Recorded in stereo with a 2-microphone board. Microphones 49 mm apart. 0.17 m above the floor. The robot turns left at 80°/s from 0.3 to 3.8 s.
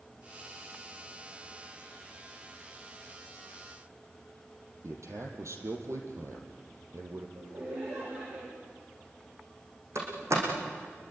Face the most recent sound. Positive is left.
turn(degrees=-70)  # may be behind; listen again after turning